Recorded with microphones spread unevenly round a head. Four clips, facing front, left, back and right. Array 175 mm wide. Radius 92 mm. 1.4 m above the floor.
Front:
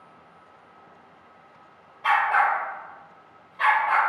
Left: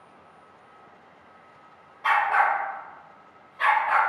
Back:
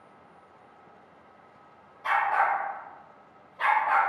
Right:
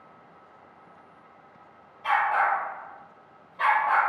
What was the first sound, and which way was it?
A dog barking, 80° left.